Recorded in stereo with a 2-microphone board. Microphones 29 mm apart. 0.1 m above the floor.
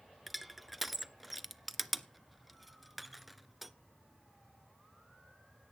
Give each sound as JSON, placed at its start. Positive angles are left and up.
{"t": 0.3, "sound": "crushing", "side_deg": -5, "distance_m": 0.5}